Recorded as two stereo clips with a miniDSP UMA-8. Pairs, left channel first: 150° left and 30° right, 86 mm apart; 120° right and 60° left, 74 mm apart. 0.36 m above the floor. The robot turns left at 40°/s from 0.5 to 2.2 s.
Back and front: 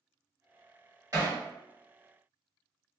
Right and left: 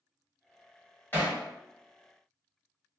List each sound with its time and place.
1.1 s hammering: 70° right, 1.5 m; by 1.4 s 80° right, 1.5 m